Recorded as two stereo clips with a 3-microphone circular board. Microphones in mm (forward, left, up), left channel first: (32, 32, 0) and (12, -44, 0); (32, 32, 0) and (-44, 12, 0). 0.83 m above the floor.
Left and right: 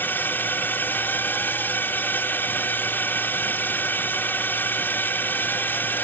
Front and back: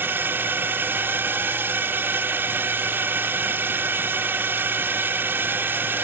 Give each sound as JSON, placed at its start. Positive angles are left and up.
{"t": 0.0, "sound": "a drone", "azimuth_deg": 135}